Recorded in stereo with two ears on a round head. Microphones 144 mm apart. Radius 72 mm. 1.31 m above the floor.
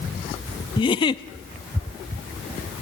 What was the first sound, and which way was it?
A giggle, 30° left (ahead or behind).